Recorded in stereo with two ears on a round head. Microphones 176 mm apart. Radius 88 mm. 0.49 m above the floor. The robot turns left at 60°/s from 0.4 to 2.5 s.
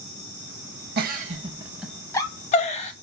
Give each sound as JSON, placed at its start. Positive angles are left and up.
{"t": 1.0, "sound": "a giggle", "side_deg": -55, "distance_m": 0.5}